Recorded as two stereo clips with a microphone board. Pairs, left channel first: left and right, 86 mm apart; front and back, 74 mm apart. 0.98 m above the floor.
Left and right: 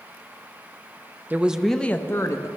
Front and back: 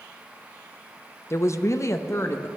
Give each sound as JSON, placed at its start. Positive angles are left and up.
{"t": 1.3, "sound": "a woman speaking", "azimuth_deg": -30, "distance_m": 0.5}